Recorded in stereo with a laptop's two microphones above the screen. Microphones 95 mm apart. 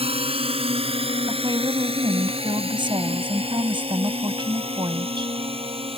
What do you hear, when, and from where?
0.0 s a drone: 85° right
1.3 s a woman speaking: 55° right (ahead or behind)